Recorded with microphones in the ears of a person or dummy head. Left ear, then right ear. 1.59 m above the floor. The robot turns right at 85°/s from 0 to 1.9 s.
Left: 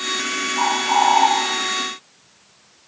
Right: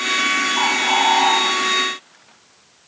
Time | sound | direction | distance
0.6 | a bird | 105° right | 1.5 m